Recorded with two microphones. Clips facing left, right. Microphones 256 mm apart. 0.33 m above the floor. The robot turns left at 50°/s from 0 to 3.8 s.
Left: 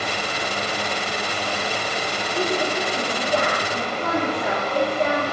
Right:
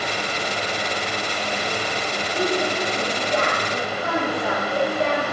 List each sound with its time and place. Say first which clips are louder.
2.3 s a woman speaking: right 1 dB; 175° left, 4.5 m; by 5.2 s 100° left, 4.5 m